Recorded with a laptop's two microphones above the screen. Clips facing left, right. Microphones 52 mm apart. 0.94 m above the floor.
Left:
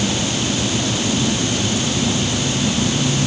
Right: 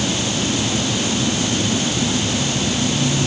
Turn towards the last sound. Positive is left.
No sound to turn to.